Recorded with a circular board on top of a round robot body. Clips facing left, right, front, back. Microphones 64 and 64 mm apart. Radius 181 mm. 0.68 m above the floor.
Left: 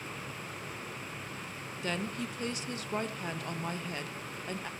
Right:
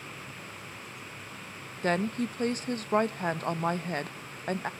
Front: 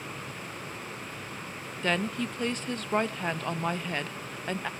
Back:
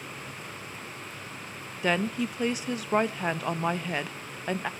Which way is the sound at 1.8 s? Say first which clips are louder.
Right 8 dB, back 2 dB; 100° right.